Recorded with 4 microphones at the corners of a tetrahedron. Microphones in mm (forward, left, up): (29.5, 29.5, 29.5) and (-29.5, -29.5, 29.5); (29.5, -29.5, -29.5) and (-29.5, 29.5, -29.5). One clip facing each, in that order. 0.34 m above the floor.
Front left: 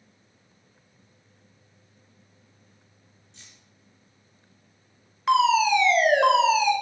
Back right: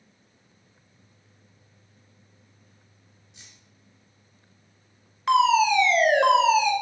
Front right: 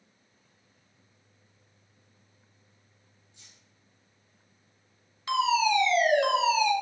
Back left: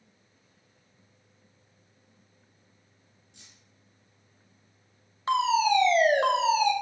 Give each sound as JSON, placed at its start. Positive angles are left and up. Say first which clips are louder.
{"t": 3.3, "sound": "keys jangling", "louder": "even, back left 3 dB", "azimuth_deg": 145, "distance_m": 4.5}
{"t": 5.3, "sound": "a fire alarm", "louder": "even, back left 1 dB", "azimuth_deg": 130, "distance_m": 2.0}